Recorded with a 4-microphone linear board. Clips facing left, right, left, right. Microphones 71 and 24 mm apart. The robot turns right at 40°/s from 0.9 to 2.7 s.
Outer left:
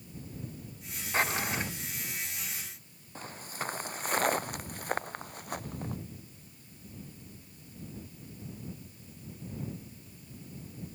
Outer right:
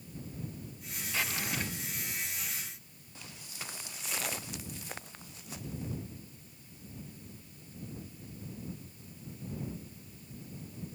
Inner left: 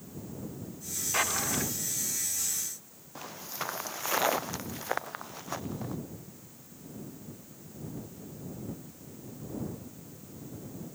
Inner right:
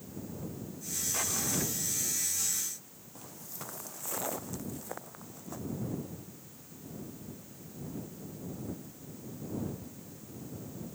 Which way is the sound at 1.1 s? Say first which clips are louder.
Outer left 5 dB, inner left 5 dB; 40° left (ahead or behind).